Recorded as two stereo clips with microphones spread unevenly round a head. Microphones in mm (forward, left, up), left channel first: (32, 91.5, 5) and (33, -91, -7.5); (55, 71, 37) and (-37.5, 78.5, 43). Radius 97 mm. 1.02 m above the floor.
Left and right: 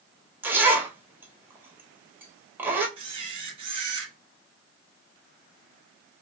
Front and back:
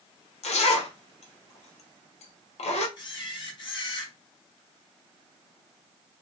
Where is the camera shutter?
35° right, 1.1 m.